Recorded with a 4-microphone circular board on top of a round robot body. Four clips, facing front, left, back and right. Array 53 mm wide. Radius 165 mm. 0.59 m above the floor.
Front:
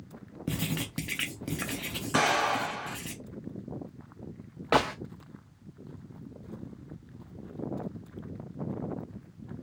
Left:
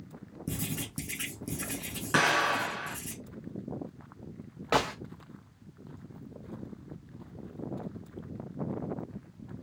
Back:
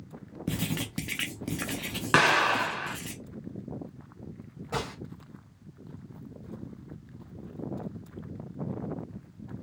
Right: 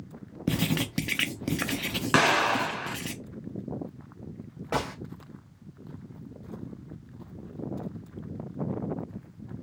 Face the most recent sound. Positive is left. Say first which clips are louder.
# left 3 dB, front 9 dB
turn(degrees=20)